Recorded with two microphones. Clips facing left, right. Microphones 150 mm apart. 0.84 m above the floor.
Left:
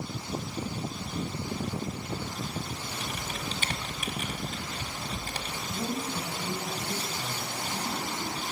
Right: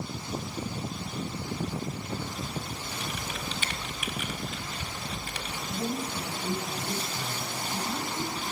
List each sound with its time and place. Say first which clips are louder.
3.0 s typing on a keyboard: right 1 dB; 40° left (ahead or behind), 1.6 m
5.7 s a woman speaking: right 1 dB; 10° left (ahead or behind), 4.5 m